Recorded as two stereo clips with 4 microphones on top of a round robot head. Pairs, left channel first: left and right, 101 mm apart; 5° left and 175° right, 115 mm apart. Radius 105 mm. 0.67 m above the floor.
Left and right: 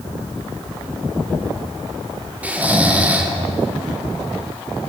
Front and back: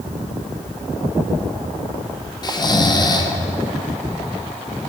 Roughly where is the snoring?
Ahead.